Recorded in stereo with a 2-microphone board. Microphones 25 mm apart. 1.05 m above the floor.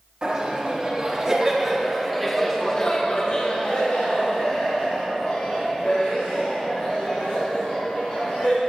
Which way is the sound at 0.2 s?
35° right (ahead or behind).